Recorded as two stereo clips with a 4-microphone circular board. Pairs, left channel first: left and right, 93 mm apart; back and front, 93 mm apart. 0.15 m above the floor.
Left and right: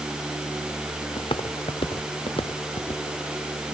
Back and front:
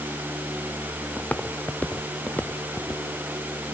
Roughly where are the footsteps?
Left.